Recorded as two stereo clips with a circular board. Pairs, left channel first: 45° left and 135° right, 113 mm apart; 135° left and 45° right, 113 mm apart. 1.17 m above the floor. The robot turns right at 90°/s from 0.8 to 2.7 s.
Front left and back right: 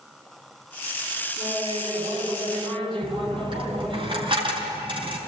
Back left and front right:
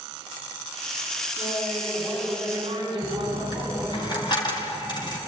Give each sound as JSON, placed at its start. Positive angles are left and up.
{"t": 1.4, "sound": "laughter", "azimuth_deg": 145, "distance_m": 7.5}
{"t": 3.0, "sound": "a dropped coin", "azimuth_deg": -175, "distance_m": 5.0}